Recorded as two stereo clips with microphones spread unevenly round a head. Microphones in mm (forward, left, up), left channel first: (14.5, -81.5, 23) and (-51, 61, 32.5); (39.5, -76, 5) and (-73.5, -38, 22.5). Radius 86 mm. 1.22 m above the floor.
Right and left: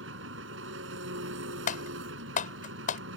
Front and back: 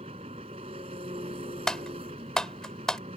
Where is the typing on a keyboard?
105° right.